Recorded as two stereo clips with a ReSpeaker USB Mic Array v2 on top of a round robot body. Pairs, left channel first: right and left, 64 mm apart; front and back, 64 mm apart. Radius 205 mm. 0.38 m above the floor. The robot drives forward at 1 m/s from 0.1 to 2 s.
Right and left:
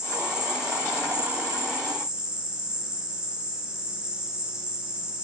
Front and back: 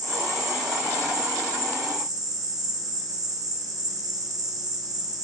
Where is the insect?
165° left, 8.5 m.